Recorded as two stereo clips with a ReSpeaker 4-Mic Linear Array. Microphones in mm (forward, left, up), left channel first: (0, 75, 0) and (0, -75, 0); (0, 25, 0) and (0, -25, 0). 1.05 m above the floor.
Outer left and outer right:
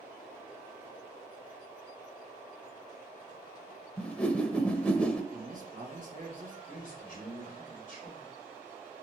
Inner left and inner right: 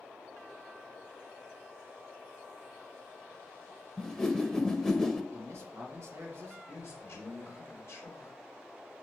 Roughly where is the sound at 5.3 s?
Right.